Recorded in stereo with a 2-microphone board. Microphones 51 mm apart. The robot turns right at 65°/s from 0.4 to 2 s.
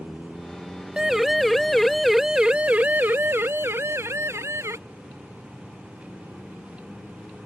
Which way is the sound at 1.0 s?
15° right (ahead or behind).